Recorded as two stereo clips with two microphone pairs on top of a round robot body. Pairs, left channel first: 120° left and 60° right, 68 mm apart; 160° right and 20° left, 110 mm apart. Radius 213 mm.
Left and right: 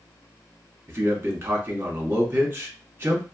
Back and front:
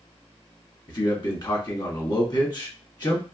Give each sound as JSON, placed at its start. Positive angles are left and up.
{"t": 0.9, "sound": "a man speaking", "azimuth_deg": -115, "distance_m": 1.4}